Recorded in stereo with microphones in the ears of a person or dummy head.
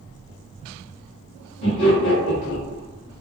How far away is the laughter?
About 1.3 m.